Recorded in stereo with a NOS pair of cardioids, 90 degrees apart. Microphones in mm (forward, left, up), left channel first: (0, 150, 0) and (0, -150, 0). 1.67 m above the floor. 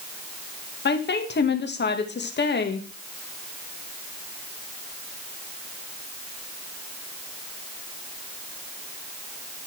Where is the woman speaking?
35° left, 1.9 m.